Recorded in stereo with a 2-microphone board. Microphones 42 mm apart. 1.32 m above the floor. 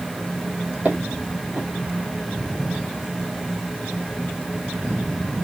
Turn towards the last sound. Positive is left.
turn(degrees=-45)  # may be behind; listen again after turning